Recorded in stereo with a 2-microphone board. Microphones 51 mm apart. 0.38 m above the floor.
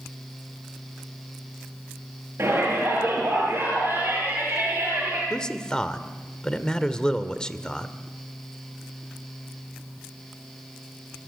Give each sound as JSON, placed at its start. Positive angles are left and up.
{"t": 2.4, "sound": "a shout", "side_deg": -45, "distance_m": 9.0}
{"t": 5.3, "sound": "a man speaking", "side_deg": 15, "distance_m": 1.4}